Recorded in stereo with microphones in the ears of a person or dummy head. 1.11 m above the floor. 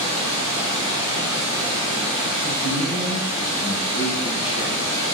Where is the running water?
25° right (ahead or behind), 0.8 m.